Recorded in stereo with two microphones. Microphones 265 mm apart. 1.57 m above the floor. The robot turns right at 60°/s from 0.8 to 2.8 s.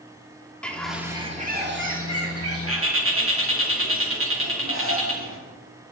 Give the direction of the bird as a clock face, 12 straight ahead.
6 o'clock.